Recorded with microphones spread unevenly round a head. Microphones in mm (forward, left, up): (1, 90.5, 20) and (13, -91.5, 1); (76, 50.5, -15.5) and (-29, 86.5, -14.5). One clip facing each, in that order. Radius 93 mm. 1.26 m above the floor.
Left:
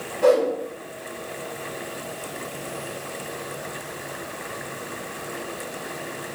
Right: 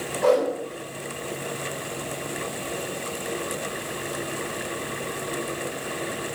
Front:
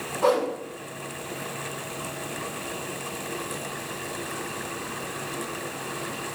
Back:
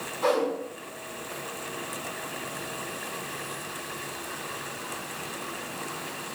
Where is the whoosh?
25° left, 4 m.